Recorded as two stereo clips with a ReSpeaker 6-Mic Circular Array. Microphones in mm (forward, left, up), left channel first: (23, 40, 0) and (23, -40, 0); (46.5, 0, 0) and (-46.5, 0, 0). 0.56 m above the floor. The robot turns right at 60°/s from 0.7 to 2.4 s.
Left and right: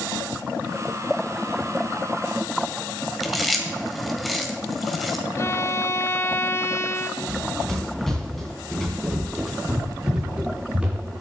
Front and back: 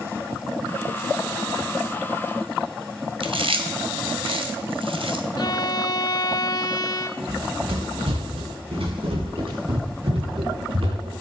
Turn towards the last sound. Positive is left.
turn(degrees=-160)